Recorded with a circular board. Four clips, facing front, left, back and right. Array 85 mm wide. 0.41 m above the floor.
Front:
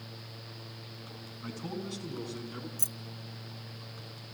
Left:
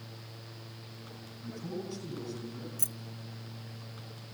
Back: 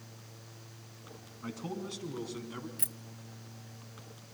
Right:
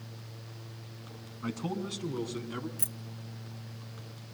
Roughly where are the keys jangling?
Behind right.